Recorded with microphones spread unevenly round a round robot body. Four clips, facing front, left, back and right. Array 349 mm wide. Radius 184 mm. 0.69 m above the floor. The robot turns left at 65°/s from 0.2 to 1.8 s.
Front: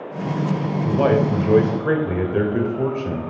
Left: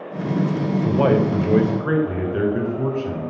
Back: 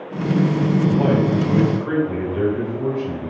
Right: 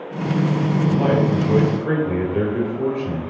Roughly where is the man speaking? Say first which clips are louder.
Left 2 dB, front 4 dB; ahead left.